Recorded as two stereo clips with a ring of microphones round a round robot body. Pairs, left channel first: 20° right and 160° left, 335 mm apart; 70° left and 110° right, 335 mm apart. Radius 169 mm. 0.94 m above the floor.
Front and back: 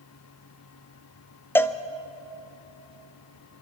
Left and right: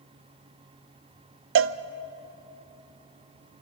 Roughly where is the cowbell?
Right.